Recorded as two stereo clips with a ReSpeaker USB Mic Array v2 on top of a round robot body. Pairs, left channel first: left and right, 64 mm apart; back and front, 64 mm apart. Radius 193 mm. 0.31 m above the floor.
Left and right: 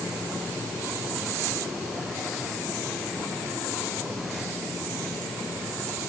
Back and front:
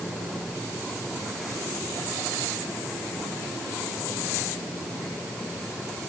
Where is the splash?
I don't hear a splash.